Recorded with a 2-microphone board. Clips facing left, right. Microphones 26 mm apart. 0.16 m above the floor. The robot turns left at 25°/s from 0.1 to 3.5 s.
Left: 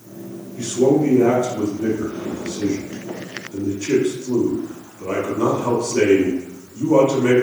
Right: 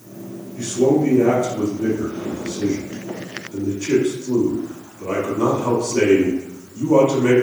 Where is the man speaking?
25° left (ahead or behind), 1.0 m; by 7.4 s 10° left (ahead or behind), 1.0 m.